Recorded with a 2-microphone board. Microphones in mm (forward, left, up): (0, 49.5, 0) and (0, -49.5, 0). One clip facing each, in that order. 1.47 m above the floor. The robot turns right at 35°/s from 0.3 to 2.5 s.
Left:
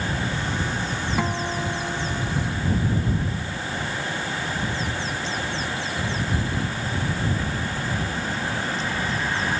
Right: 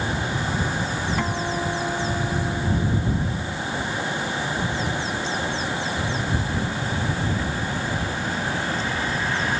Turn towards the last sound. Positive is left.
turn(degrees=-140)